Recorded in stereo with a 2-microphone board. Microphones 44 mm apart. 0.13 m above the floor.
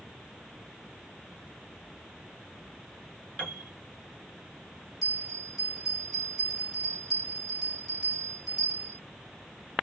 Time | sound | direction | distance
3.4 | a piano | 20° left (ahead or behind) | 1.7 m
5.0 | a bell | 10° left (ahead or behind) | 1.5 m